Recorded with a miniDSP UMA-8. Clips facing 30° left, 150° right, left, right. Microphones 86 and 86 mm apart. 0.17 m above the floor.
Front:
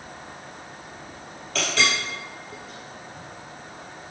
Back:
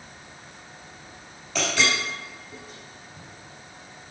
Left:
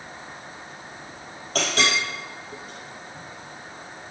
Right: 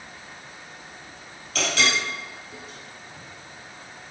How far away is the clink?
About 3 m.